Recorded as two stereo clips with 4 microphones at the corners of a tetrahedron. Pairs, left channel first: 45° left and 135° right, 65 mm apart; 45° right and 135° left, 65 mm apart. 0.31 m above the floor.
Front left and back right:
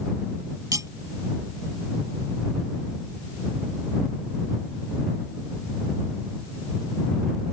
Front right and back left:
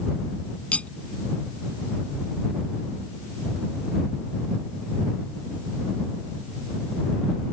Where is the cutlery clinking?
110° right.